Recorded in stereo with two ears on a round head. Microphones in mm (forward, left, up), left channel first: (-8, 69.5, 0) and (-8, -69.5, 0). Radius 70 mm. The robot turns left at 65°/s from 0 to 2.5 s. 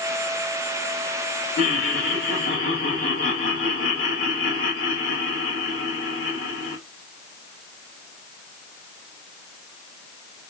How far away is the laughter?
About 3 m.